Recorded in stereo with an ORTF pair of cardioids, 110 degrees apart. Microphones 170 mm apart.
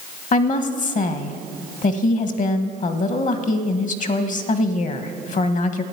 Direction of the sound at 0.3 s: 50° left.